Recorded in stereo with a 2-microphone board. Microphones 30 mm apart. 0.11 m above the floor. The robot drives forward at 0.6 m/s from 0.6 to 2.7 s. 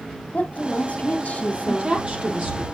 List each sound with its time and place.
0.3 s a woman speaking: 50° left (ahead or behind), 2.5 m; by 2.0 s 40° left (ahead or behind), 3 m
1.7 s a woman speaking: 35° right (ahead or behind), 3.5 m; by 2.6 s 30° right (ahead or behind), 4 m